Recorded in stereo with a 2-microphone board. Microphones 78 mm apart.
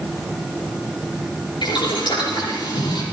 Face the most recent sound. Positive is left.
turn(degrees=80)